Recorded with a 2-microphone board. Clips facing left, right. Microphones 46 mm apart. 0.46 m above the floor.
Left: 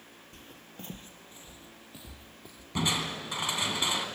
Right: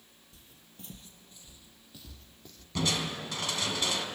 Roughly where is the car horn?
No car horn in this recording.